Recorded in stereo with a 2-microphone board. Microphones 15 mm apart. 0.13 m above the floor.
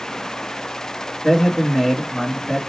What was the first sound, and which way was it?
A man speaking, 25° left (ahead or behind).